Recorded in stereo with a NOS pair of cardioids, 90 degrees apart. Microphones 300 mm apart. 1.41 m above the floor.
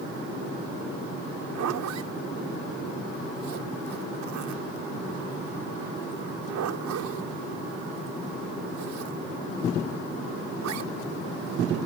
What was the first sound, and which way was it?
A zipper, 70° right.